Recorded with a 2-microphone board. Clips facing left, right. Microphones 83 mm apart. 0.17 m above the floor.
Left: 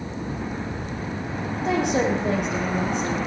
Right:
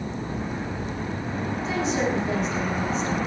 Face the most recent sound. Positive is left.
turn(degrees=65)  # may be behind; listen again after turning